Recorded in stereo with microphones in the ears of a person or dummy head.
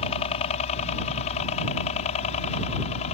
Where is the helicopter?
40° left (ahead or behind).